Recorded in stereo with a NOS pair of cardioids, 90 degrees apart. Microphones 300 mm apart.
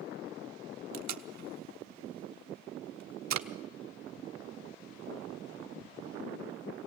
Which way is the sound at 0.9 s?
70° right.